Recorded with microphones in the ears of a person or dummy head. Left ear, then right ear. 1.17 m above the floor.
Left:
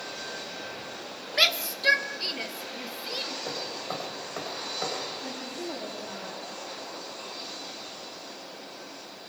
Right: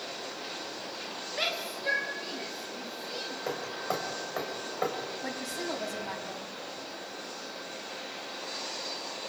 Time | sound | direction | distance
1.3 | a shout | 65° left (ahead or behind) | 1.4 m
3.5 | hammering | 25° right (ahead or behind) | 4 m
5.2 | a woman speaking | 75° right (ahead or behind) | 7.5 m